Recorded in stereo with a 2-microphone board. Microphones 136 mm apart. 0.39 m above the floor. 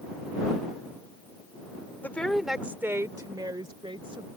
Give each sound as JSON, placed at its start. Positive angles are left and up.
{"t": 2.0, "sound": "a woman speaking", "side_deg": 15}